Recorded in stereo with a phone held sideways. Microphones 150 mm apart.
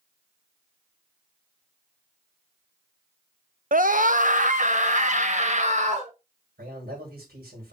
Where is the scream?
60° right (ahead or behind), 0.6 m; by 6.1 s 50° right (ahead or behind), 2.0 m.